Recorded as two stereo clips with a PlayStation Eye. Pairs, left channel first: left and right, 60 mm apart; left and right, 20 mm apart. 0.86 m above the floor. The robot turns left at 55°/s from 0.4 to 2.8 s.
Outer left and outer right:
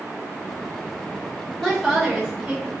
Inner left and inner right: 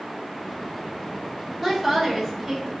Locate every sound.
1.6 s a woman speaking: 20° left, 1.1 m; by 2.7 s 40° right, 1.1 m